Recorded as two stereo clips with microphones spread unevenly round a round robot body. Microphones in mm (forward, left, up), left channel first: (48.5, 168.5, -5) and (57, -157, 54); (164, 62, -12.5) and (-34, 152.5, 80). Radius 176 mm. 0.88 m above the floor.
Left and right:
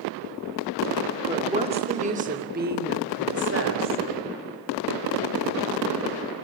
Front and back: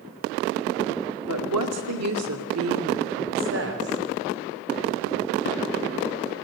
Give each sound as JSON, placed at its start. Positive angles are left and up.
{"t": 1.3, "sound": "a woman speaking", "azimuth_deg": -170, "distance_m": 2.5}